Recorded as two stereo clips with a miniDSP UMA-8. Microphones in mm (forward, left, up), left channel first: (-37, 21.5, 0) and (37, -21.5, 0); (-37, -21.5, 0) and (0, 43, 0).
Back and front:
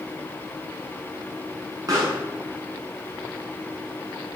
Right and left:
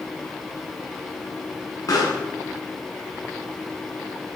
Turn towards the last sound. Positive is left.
turn(degrees=-75)